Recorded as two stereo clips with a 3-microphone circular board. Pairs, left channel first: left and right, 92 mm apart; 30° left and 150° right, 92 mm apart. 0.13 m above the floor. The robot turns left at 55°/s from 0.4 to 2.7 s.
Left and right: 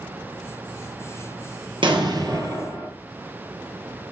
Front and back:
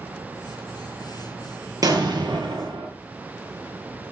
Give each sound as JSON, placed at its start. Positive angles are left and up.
{"t": 1.8, "sound": "an explosion", "azimuth_deg": -105, "distance_m": 1.9}